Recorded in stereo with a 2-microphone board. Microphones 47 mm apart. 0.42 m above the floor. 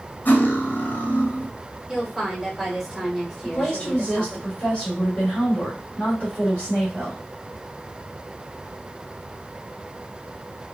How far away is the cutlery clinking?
About 1.0 m.